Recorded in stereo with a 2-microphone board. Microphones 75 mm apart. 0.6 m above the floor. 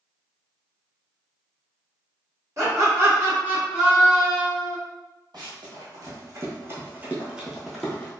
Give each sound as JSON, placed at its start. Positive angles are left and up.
{"t": 2.6, "sound": "laughter", "side_deg": -45, "distance_m": 1.4}
{"t": 5.3, "sound": "running footsteps", "side_deg": -65, "distance_m": 1.5}